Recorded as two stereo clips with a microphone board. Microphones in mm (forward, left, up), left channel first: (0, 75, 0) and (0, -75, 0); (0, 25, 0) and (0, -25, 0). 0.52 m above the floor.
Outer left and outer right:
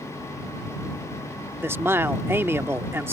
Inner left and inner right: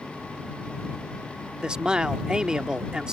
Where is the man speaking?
15° right (ahead or behind).